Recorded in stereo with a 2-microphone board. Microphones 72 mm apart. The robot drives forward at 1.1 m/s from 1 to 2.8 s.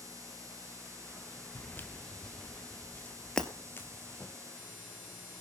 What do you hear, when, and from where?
1.6 s footsteps: 30° left (ahead or behind), 1.0 m
3.4 s breaking glass: 10° left (ahead or behind), 1.4 m